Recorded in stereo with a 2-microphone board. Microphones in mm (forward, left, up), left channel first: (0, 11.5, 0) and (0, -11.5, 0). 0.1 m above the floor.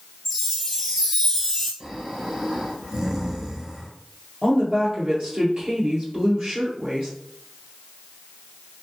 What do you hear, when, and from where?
0.2 s a chime: 10° left (ahead or behind), 1.3 m
1.8 s snoring: 35° right (ahead or behind), 1.9 m
4.4 s a woman speaking: 50° right (ahead or behind), 1.9 m